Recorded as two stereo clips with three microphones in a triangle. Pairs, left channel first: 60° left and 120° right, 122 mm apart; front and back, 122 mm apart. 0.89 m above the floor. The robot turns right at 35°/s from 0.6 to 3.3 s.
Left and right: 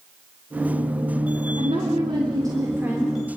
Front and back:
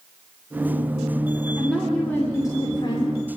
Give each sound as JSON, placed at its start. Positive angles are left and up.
{"t": 1.6, "sound": "a woman speaking", "azimuth_deg": -90, "distance_m": 3.0}